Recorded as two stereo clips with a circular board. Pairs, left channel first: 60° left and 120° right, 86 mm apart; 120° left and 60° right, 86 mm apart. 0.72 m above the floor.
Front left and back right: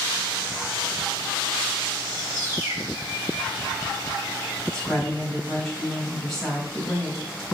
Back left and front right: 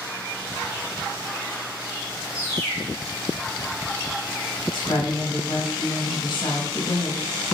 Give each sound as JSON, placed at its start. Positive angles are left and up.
{"t": 2.3, "sound": "a bird", "azimuth_deg": 180, "distance_m": 3.0}
{"t": 4.7, "sound": "a woman speaking", "azimuth_deg": 145, "distance_m": 3.5}